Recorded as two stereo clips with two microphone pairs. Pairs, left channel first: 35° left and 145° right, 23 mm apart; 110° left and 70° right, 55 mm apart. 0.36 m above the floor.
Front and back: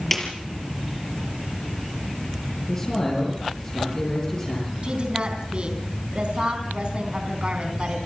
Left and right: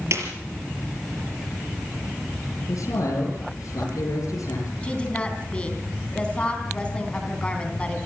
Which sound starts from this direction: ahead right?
A snare drum, at 0.1 s.